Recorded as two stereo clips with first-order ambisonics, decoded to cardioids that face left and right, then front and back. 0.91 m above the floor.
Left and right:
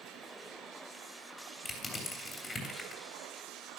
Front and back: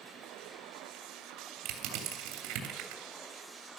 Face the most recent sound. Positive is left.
turn(degrees=165)